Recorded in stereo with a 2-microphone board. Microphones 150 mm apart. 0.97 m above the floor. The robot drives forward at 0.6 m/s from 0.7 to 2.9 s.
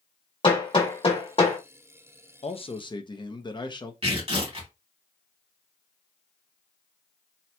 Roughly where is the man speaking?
Left.